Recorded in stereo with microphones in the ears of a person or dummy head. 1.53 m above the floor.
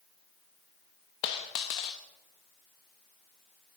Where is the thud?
No thud in this recording.